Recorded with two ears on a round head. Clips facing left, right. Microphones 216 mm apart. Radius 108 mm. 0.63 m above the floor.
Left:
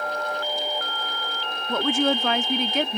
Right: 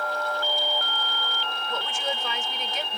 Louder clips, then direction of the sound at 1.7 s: Left 12 dB; 50° left (ahead or behind).